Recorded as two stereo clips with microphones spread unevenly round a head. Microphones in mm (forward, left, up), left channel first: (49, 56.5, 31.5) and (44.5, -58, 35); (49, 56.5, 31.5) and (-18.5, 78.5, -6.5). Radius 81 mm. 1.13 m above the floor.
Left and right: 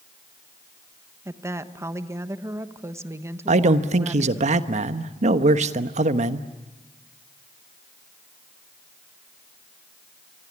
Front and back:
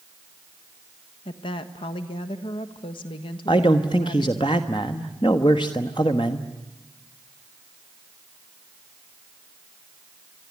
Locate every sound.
1.2 s a woman speaking: 30° right, 1.4 m
3.5 s a man speaking: 75° right, 1.1 m